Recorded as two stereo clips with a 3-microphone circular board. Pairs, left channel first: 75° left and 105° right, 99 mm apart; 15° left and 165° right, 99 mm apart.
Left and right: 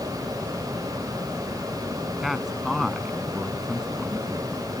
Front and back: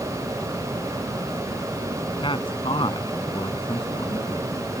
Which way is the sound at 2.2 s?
20° right.